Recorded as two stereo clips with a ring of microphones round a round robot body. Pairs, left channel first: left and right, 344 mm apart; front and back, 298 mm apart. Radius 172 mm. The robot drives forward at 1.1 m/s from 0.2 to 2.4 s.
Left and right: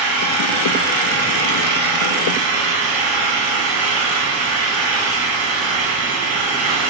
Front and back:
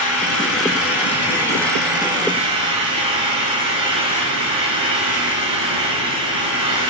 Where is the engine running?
55° right, 3 m; by 6.9 s 105° right, 2.5 m.